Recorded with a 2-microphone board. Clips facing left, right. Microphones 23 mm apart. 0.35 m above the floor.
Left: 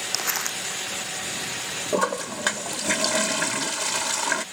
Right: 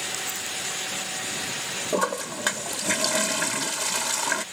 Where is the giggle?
No giggle in this recording.